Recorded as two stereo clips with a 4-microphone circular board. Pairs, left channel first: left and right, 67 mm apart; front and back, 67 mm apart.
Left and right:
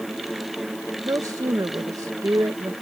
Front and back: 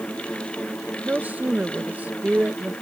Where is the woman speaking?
115° right.